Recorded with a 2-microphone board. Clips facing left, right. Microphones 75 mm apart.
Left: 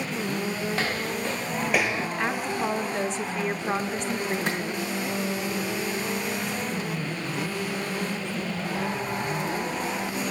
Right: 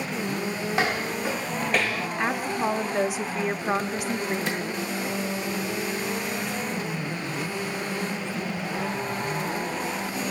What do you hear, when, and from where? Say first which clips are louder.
0.7 s footsteps: right 2 dB; 20° right (ahead or behind), 1.4 m; by 2.1 s 30° left (ahead or behind), 0.6 m
2.2 s a woman speaking: right 3 dB; 10° right (ahead or behind), 0.7 m
4.5 s a clap: left 1 dB; 55° left (ahead or behind), 5.5 m